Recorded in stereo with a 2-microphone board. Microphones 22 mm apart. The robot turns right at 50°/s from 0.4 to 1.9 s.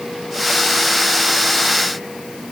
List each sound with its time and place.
Only background noise.